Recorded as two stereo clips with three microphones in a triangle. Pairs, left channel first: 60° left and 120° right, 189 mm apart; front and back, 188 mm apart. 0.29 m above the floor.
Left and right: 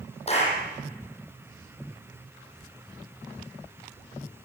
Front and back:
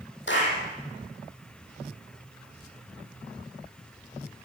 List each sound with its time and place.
0.3 s a clap: 5° left, 9.5 m